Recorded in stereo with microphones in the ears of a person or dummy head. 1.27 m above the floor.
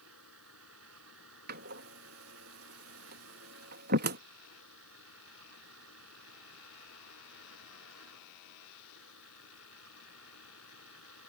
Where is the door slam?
60° right (ahead or behind).